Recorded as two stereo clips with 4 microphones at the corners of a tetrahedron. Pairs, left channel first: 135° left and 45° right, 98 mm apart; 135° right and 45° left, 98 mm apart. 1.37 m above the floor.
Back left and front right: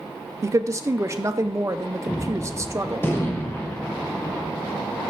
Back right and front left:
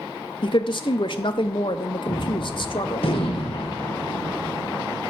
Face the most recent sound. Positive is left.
turn(degrees=-160)